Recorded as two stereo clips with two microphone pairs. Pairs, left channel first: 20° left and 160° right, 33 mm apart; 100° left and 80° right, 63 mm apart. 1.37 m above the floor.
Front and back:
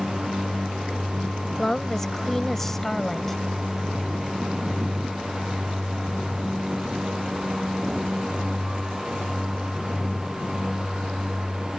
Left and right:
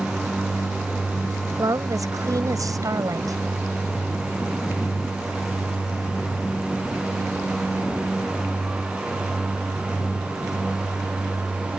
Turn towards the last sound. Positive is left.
turn(degrees=-60)